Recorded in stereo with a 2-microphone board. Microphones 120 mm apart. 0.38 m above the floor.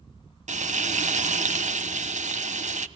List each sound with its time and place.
0.5 s frying: 80° right, 0.9 m